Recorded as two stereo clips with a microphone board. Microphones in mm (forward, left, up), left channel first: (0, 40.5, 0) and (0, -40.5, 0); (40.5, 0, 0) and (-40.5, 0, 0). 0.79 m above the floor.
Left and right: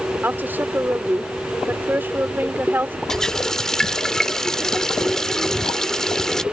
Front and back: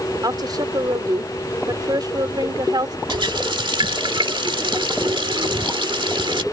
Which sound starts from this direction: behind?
A running tap, at 3.1 s.